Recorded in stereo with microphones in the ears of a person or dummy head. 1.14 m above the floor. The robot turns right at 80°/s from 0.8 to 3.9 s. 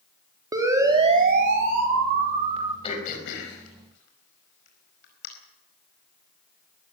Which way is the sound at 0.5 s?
20° right (ahead or behind).